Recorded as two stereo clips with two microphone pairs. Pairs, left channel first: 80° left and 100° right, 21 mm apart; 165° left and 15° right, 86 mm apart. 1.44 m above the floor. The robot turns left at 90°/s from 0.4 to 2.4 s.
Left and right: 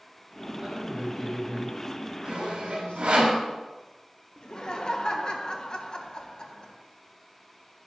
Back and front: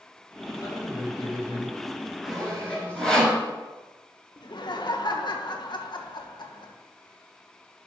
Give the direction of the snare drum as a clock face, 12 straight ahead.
No snare drum in this recording.